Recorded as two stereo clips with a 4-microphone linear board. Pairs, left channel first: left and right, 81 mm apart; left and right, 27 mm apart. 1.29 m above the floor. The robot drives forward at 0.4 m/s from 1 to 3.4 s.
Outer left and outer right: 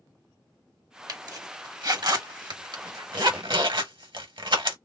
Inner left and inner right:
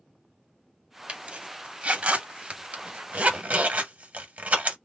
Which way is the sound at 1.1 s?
50° right (ahead or behind).